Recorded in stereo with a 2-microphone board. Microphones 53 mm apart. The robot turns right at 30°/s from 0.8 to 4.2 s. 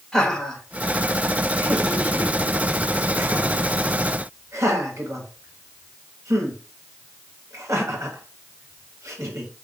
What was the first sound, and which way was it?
Laughter, 10° left (ahead or behind).